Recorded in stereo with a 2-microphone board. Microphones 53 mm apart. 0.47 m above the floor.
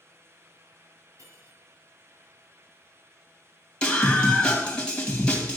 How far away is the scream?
About 2.5 m.